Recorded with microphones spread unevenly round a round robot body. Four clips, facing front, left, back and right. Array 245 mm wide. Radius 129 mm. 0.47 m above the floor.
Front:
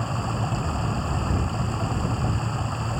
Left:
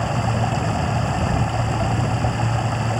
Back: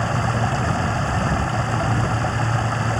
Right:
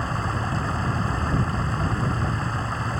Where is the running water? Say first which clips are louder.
Left 5 dB, back 6 dB; 135° left.